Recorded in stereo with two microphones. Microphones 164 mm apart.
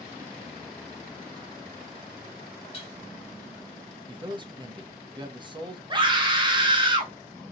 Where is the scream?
30° right (ahead or behind), 1.1 m.